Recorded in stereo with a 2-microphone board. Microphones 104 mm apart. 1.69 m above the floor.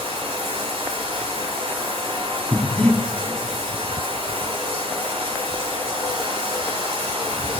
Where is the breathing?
10° left (ahead or behind), 1.0 m.